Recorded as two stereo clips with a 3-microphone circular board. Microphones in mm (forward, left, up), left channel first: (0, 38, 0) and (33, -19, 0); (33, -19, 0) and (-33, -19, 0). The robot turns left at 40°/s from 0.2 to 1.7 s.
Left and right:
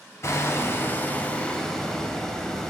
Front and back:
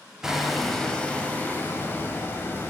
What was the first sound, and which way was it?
Hammering, 100° left.